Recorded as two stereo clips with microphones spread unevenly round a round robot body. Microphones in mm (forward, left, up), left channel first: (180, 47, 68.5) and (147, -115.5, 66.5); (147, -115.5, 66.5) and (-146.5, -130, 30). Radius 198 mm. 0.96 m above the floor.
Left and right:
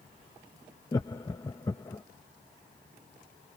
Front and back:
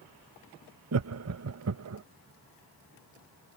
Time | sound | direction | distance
0.9 | laughter | 150° left | ?